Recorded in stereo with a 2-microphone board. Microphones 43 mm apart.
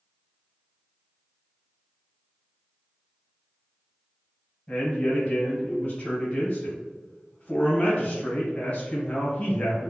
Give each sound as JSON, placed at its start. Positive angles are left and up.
{"t": 4.7, "sound": "a man speaking", "side_deg": 20, "distance_m": 1.6}